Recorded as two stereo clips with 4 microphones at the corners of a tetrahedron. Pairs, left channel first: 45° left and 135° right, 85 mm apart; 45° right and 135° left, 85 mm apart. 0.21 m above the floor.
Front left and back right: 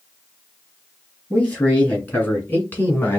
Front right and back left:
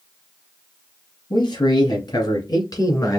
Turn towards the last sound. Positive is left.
turn(degrees=-10)